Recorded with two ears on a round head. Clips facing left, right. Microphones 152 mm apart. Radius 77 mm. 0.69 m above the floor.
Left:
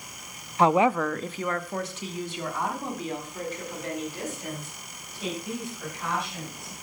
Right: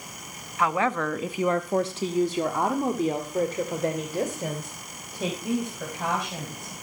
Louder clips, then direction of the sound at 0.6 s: Left 4 dB; 25° left (ahead or behind).